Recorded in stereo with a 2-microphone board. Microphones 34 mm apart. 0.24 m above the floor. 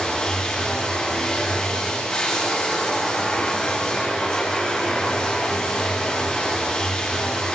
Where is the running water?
20° left (ahead or behind), 10 m.